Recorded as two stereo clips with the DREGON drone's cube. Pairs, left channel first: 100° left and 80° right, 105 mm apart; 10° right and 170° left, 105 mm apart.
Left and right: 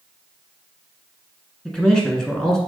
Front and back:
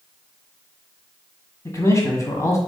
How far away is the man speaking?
About 1.2 m.